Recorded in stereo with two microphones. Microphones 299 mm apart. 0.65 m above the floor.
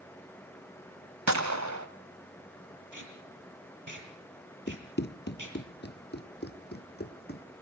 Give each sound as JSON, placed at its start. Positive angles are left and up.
{"t": 1.3, "sound": "a gunshot", "side_deg": -65, "distance_m": 1.6}
{"t": 2.9, "sound": "tape being pulled", "side_deg": -90, "distance_m": 6.0}
{"t": 4.7, "sound": "running footsteps", "side_deg": 35, "distance_m": 0.8}